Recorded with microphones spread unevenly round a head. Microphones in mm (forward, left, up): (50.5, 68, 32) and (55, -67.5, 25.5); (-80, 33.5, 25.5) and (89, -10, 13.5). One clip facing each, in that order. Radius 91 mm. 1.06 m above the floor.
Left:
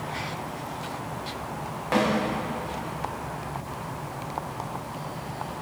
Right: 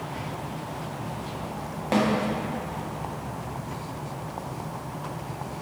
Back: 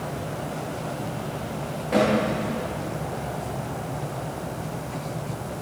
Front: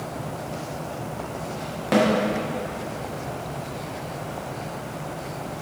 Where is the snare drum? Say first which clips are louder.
Right 1 dB, front 1 dB; 25° right, 1.4 m.